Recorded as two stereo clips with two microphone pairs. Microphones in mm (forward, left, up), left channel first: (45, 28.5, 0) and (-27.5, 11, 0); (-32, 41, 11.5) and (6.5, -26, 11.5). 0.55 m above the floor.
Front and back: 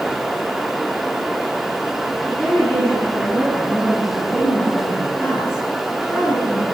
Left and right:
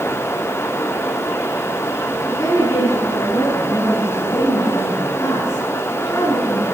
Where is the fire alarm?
I don't hear a fire alarm.